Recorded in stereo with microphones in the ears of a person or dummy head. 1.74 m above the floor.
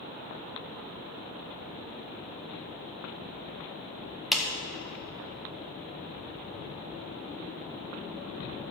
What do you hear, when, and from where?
4.3 s a clap: 5° left (ahead or behind), 1.5 m